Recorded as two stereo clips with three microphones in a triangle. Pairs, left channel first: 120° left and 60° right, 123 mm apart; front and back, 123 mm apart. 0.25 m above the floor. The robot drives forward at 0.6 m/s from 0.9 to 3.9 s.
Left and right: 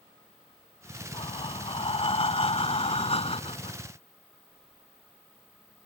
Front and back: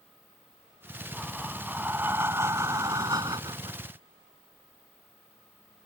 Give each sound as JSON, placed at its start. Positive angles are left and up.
{"t": 1.1, "sound": "breathing", "azimuth_deg": 95}